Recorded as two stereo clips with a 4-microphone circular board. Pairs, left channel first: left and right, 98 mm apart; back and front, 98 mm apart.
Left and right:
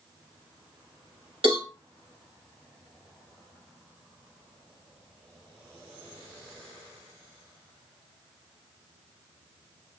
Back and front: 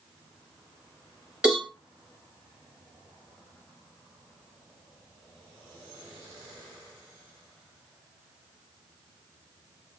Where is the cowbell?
80° right, 3 m.